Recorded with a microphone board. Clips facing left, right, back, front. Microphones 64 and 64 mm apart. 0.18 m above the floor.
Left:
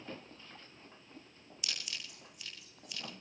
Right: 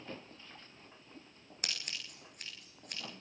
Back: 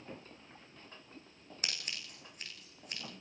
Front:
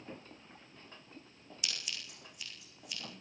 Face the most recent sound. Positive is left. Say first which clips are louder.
# right 1 dB, back 1 dB
turn(degrees=-130)